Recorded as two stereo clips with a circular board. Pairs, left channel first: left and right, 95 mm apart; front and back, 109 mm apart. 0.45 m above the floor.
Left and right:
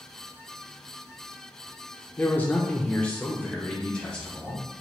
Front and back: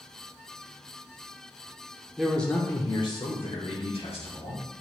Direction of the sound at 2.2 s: 110° left.